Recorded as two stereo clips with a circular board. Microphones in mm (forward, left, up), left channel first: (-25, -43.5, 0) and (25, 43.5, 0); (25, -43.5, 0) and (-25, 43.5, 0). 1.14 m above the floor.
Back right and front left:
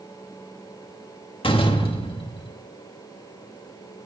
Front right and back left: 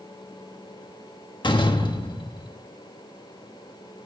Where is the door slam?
95° right, 1.3 m.